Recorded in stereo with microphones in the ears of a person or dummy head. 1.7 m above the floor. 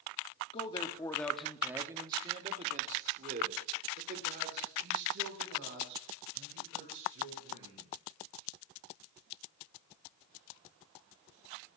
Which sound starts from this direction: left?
A man speaking, at 0.5 s.